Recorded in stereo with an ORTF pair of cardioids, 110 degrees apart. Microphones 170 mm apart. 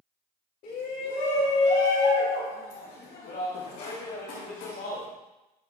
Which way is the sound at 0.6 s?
65° left.